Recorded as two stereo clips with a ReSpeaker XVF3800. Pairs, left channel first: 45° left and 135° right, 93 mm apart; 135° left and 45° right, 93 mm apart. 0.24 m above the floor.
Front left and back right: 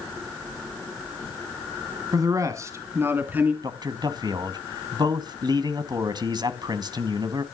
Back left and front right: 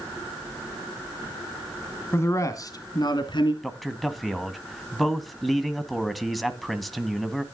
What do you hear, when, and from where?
2.1 s a man speaking: 170° right, 2 m; by 3.5 s 155° left, 3 m
3.6 s a man speaking: 135° right, 1.9 m